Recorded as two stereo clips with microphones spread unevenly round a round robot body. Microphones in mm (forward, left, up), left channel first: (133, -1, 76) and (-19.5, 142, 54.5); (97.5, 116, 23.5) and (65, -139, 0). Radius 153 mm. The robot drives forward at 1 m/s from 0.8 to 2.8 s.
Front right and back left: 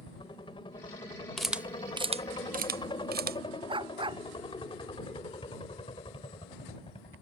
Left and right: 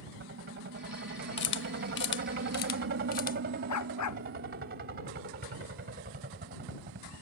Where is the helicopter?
105° right; by 7.2 s 100° right.